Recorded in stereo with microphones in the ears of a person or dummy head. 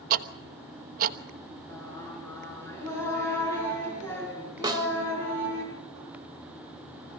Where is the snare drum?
15° right (ahead or behind), 1.5 m.